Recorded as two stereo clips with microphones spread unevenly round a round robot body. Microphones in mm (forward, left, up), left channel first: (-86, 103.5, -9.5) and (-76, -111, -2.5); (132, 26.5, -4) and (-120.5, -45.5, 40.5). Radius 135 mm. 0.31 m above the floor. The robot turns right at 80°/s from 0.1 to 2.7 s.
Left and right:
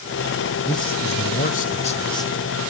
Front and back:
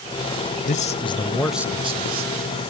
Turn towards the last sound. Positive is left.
turn(degrees=-170)